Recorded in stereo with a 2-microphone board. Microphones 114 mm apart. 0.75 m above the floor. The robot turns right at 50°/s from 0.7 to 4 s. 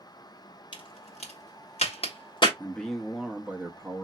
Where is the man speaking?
155° left, 0.8 m; by 4.0 s 130° right, 0.8 m.